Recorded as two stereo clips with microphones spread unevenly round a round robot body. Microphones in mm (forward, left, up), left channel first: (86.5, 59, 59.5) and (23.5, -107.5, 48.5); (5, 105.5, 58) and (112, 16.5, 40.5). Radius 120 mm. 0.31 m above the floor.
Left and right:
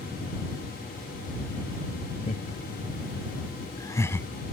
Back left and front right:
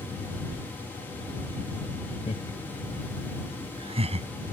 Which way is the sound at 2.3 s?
105° left.